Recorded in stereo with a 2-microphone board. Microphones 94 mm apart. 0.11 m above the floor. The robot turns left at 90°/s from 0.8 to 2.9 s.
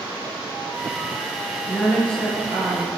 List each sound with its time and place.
1.7 s a woman speaking: 50° left, 2.5 m; by 2.9 s 60° right, 2.5 m